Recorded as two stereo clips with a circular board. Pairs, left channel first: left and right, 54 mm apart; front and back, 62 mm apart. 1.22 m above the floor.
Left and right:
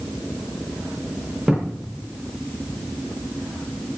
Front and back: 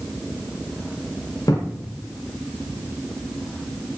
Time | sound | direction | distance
1.5 | a thud | 10° right | 5 m